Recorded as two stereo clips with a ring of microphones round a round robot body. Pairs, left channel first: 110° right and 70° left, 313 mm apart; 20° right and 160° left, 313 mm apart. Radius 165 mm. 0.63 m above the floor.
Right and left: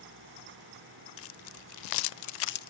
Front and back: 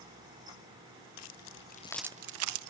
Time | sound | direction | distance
1.2 | keys jangling | 60° right | 1.0 m